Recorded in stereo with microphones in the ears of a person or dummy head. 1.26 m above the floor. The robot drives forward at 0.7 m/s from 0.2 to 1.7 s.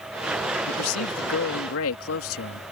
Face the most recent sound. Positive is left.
turn(degrees=70)  # may be behind; listen again after turning